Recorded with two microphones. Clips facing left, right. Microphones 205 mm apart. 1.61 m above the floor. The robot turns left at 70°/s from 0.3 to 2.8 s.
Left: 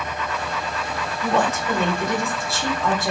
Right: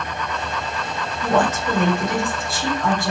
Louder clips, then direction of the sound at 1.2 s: Right 2 dB; 90° right.